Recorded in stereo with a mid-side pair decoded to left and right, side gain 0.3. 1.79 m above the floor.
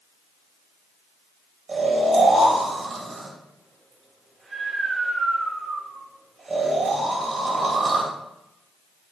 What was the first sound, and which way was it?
Snoring, 60° right.